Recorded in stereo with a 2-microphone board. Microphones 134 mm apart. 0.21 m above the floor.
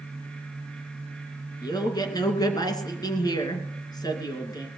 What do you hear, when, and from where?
1.6 s a man speaking: 30° left (ahead or behind), 2.5 m